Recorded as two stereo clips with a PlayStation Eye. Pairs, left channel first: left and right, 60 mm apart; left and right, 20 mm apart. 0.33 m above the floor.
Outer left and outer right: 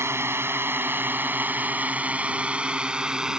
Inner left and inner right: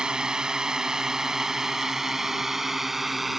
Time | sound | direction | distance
0.0 | a drone | 55° right (ahead or behind) | ?